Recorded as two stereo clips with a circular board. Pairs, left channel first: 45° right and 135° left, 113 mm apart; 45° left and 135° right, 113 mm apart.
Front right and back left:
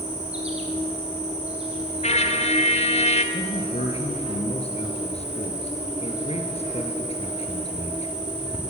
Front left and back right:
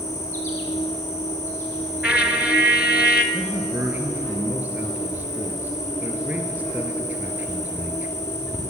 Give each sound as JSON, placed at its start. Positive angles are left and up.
{"t": 0.0, "sound": "an insect", "azimuth_deg": 110, "distance_m": 3.0}
{"t": 2.0, "sound": "a trumpet", "azimuth_deg": -55, "distance_m": 1.3}
{"t": 3.3, "sound": "a man speaking", "azimuth_deg": -65, "distance_m": 3.5}